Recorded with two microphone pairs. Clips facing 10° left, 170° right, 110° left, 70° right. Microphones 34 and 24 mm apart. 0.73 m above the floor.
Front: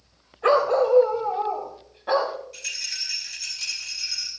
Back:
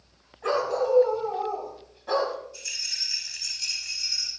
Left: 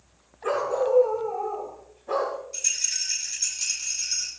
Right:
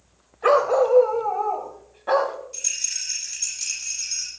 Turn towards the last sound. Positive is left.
turn(degrees=20)